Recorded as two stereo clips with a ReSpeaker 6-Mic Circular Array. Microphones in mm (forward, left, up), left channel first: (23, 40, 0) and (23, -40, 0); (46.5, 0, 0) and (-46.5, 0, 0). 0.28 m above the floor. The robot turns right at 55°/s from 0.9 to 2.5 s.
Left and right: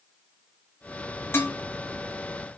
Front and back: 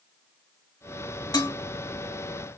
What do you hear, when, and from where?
1.3 s dishes clattering: 35° left, 1.4 m; by 1.6 s 45° left, 1.4 m